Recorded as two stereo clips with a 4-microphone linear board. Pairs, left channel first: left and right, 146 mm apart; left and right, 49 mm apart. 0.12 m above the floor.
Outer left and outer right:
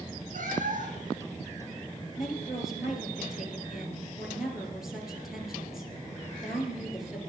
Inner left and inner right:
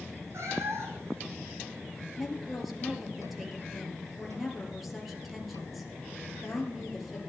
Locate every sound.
0.3 s a cat meowing: 65° right (ahead or behind), 2 m
2.2 s a woman speaking: 5° right (ahead or behind), 2.5 m